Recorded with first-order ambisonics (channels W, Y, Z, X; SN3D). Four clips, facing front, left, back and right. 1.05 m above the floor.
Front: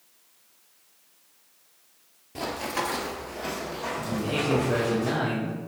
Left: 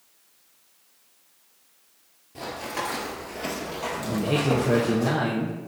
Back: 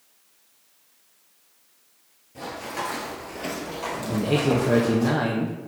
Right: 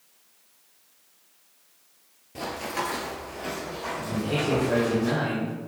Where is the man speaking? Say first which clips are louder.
Left 2 dB, back 4 dB; 150° left, 0.9 m.